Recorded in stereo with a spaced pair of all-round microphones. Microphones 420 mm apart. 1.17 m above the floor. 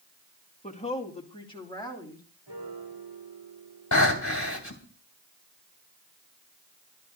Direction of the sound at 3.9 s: 40° left (ahead or behind).